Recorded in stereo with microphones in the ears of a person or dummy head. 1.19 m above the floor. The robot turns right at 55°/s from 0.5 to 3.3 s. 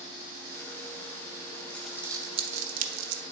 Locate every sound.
1.7 s crumpling: 10° left (ahead or behind), 0.6 m; by 3.2 s 75° right (ahead or behind), 0.6 m